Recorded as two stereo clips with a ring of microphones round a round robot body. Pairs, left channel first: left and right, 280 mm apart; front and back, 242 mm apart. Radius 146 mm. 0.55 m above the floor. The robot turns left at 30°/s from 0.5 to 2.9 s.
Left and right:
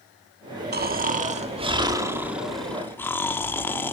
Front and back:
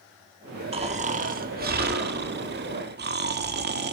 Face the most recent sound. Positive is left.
turn(degrees=170)